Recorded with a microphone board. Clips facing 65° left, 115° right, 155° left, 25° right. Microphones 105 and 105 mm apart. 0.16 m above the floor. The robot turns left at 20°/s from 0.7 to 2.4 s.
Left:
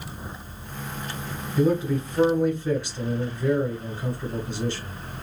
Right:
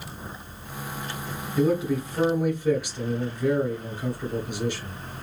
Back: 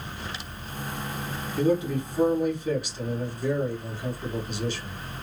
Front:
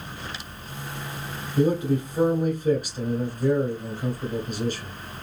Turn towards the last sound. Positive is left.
turn(degrees=-40)